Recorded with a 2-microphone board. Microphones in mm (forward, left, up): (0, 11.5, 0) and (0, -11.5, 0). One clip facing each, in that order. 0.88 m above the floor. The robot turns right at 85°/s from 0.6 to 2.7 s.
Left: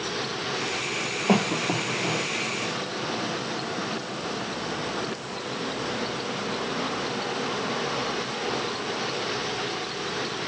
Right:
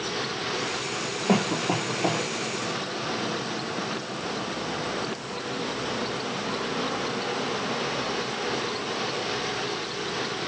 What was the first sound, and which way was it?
A cough, 15° left (ahead or behind).